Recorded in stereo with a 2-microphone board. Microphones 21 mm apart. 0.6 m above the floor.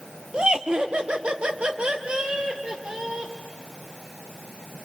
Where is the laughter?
45° right (ahead or behind), 1.4 m; by 3.3 s 55° right (ahead or behind), 2.5 m.